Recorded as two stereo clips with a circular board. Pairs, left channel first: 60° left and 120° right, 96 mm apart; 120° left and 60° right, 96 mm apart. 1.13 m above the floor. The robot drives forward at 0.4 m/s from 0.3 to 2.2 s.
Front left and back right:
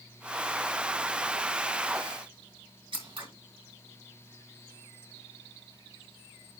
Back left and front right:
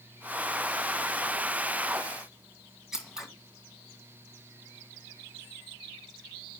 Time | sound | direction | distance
2.9 | scissors | 145° right | 2.5 m